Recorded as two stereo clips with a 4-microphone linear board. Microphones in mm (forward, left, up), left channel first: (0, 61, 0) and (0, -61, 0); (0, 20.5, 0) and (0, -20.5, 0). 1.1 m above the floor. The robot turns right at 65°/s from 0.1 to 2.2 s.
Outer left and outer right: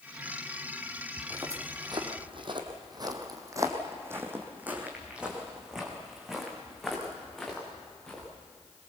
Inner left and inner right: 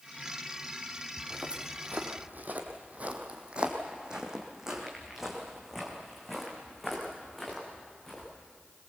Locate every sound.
1.2 s footsteps: 10° right (ahead or behind), 2.5 m; by 8.3 s 5° left (ahead or behind), 5.5 m